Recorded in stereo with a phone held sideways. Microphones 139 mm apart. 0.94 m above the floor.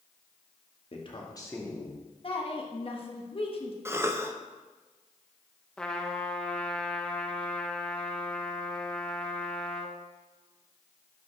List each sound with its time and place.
0.9 s a man speaking: 45° left (ahead or behind), 1.2 m; by 2.0 s 5° left (ahead or behind), 1.6 m
2.2 s a woman speaking: 40° left (ahead or behind), 1.1 m
3.9 s a cough: 20° right (ahead or behind), 0.6 m
5.8 s a trumpet: 5° left (ahead or behind), 0.7 m